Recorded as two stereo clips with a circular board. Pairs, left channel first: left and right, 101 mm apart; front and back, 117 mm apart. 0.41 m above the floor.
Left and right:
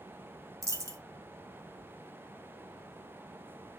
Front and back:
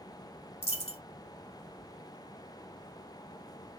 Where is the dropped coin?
30° right, 0.8 m.